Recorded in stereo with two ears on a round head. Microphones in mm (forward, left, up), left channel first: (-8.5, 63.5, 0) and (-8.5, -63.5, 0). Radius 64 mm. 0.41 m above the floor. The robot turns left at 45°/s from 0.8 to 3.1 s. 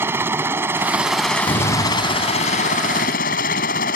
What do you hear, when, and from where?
0.0 s a helicopter: 160° right; by 4.0 s 95° left
1.5 s a door slam: 140° left; by 2.6 s 90° left